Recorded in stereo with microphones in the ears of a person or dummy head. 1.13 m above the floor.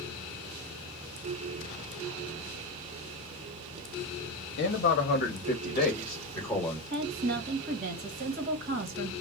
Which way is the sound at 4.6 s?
70° left (ahead or behind).